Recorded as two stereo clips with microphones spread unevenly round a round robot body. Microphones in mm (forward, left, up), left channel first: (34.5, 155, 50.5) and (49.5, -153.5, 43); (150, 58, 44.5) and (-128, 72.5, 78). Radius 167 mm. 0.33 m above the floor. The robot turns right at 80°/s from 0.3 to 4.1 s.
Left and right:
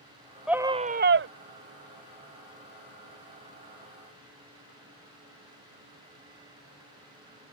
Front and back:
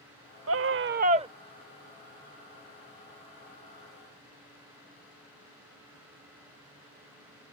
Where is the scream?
175° right; by 1.3 s 110° right.